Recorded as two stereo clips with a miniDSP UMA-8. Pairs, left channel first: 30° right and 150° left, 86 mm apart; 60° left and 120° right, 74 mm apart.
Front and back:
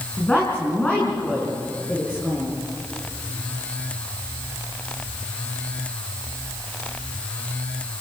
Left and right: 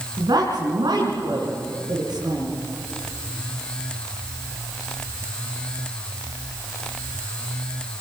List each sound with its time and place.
0.2 s a woman speaking: 105° right, 5 m; by 2.5 s 110° right, 7 m